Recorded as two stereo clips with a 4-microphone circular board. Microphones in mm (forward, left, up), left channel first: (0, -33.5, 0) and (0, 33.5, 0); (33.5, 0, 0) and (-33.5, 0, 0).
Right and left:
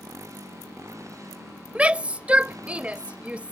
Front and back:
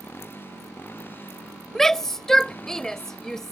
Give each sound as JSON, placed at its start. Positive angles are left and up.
{"t": 0.0, "sound": "a motorcycle", "azimuth_deg": 55}
{"t": 1.8, "sound": "a shout", "azimuth_deg": 70}